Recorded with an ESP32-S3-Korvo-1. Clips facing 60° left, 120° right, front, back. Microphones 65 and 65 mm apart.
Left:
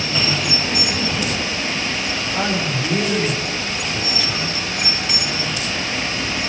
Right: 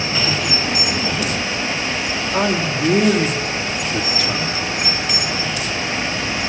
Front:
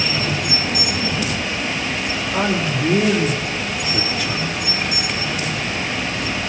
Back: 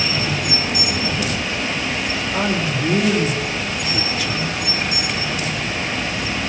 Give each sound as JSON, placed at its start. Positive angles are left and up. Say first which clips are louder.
{"t": 2.3, "sound": "a man speaking", "louder": "right 4 dB, front 2 dB", "azimuth_deg": -90, "distance_m": 3.5}